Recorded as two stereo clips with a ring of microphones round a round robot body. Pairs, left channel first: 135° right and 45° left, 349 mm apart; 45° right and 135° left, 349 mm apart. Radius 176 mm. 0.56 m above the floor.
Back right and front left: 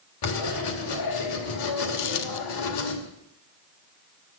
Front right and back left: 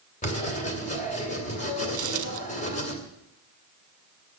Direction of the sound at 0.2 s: 115° right.